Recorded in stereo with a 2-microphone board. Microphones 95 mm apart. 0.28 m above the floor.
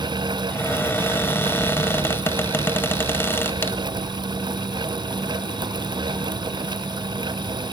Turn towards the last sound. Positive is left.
turn(degrees=25)  # may be behind; listen again after turning